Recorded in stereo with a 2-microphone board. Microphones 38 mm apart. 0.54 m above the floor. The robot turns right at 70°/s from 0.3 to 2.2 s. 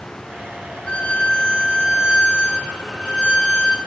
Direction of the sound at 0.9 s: 55° left.